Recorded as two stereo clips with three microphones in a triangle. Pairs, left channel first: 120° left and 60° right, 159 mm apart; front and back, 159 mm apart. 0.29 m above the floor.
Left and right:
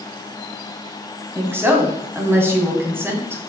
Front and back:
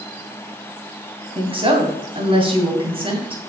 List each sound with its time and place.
1.4 s a woman speaking: 130° right, 2.5 m